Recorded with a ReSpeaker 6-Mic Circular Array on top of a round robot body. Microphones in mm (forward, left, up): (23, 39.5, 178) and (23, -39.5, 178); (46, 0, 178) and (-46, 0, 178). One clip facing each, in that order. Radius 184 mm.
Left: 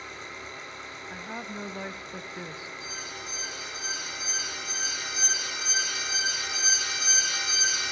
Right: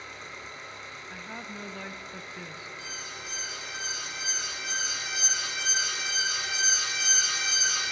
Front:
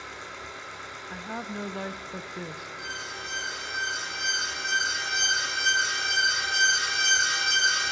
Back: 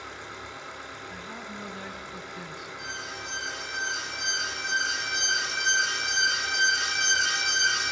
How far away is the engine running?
About 8.5 m.